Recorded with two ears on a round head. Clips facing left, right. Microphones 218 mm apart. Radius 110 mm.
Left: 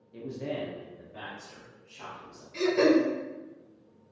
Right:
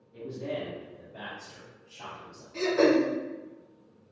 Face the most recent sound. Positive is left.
turn(degrees=55)  # may be behind; listen again after turning